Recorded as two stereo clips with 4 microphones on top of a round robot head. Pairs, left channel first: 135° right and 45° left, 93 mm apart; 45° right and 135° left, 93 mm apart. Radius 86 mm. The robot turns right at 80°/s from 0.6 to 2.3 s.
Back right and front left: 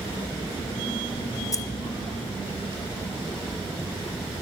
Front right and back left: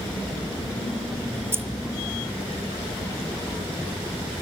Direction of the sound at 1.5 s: 170° right.